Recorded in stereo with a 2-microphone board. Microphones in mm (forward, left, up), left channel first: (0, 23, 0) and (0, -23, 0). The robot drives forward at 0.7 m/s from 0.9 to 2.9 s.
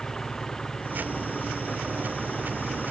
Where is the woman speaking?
I don't hear a woman speaking.